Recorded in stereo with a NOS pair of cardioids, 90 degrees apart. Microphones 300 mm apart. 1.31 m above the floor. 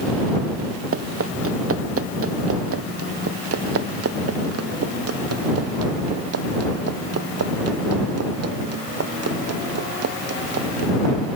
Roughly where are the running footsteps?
Ahead right.